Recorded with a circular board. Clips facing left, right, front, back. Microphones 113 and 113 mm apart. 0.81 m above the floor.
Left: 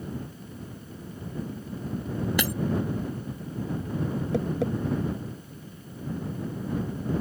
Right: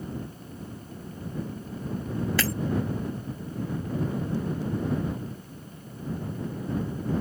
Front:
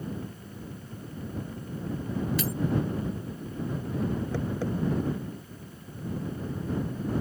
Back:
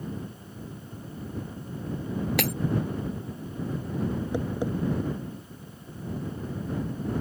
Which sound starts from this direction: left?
Tapping, at 4.3 s.